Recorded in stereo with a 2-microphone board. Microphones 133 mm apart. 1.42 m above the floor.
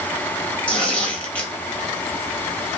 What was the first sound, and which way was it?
Tearing paper, 10° left (ahead or behind).